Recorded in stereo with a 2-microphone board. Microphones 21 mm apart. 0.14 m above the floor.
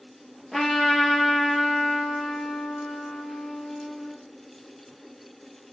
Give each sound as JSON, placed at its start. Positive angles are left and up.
{"t": 0.5, "sound": "a trumpet", "side_deg": 5, "distance_m": 2.0}